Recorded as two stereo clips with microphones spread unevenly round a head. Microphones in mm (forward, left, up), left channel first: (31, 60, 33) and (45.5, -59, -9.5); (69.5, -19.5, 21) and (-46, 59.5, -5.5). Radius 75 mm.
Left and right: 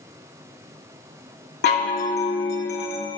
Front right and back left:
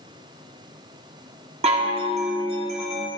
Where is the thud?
I don't hear a thud.